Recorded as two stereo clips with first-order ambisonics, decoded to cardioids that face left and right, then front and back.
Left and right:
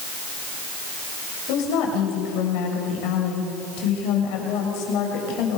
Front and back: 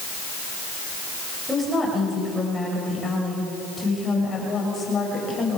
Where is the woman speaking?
95° left, 7.5 m; by 5.6 s 70° left, 7.5 m.